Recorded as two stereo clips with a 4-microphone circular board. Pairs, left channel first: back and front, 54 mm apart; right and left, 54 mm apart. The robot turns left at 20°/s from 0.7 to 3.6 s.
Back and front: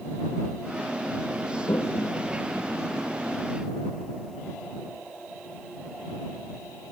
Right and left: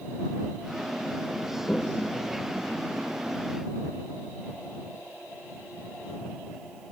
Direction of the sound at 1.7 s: 160° right.